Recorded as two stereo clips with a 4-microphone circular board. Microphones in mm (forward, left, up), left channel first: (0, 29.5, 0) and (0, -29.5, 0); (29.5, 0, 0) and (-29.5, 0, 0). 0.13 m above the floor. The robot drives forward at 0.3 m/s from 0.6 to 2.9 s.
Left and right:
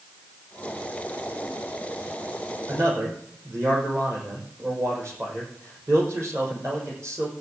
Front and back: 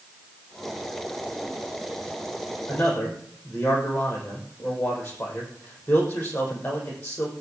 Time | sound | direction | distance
2.7 | a man speaking | 60° right | 6 m